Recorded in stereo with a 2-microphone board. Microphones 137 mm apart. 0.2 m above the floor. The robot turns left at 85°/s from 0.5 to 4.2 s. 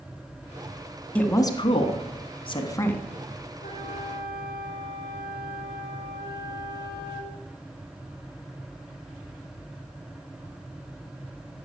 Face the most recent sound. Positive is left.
turn(degrees=30)